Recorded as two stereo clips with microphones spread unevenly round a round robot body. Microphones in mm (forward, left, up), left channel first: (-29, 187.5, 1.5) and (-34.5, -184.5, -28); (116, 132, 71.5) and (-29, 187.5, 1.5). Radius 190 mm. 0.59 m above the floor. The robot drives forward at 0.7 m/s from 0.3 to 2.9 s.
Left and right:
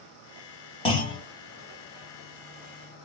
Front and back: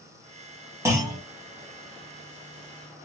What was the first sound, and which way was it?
A clunk, 165° left.